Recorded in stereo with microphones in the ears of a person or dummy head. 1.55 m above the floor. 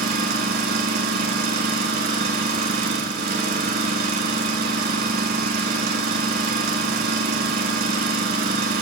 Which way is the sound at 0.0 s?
50° right (ahead or behind).